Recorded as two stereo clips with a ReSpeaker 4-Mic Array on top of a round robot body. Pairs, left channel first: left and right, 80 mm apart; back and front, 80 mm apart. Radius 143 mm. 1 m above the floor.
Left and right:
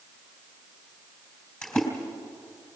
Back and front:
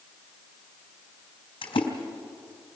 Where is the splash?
165° left, 3 m.